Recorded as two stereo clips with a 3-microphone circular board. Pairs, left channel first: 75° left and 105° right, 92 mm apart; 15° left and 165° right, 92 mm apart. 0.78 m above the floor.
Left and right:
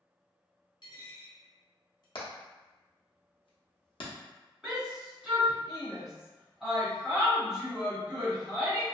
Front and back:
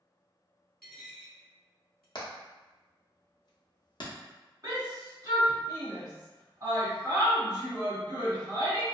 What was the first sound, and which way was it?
A dropped coin, 100° left.